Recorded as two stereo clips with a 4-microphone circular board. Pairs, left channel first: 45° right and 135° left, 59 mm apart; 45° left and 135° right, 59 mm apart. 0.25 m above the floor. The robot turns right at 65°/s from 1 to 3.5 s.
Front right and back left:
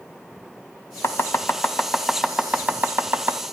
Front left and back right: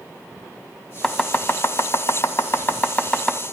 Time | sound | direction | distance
1.0 | chopping | 25° right | 1.7 m